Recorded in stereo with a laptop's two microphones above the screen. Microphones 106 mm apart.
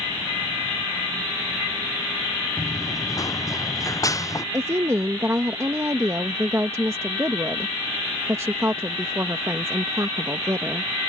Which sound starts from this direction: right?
A woman speaking, at 4.5 s.